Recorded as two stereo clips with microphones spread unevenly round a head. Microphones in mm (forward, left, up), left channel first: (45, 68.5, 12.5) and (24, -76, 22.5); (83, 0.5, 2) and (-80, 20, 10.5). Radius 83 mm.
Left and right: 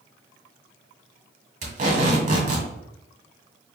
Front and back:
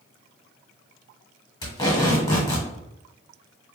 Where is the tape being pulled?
75° right, 1.8 m.